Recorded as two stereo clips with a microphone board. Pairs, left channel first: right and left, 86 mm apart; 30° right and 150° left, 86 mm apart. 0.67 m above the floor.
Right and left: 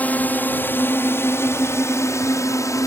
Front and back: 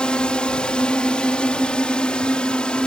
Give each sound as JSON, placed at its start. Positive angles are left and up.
{"t": 0.0, "sound": "a drone", "azimuth_deg": -85}